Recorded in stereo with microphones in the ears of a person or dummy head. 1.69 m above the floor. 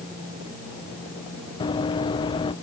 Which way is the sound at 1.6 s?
25° left (ahead or behind).